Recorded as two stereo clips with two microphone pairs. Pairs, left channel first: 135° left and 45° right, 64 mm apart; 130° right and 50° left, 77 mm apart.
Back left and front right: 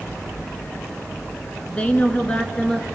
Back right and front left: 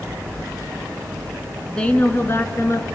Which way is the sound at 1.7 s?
160° left.